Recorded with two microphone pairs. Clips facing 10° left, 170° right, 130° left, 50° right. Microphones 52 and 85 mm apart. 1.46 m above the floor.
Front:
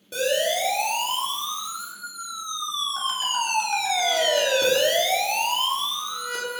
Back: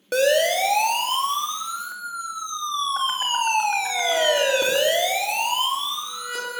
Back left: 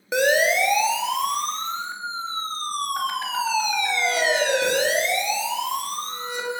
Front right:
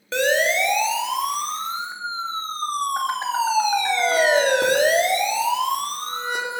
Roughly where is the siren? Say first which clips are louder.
Back 5 dB, back left 1 dB; behind right.